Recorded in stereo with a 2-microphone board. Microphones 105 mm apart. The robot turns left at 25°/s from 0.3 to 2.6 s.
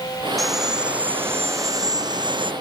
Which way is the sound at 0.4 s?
Straight ahead.